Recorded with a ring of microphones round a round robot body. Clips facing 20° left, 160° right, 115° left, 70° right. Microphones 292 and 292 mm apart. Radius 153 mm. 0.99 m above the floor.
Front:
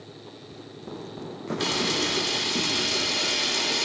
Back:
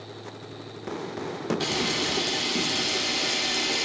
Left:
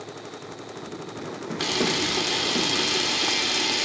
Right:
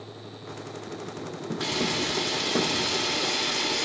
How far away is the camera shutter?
About 1.1 m.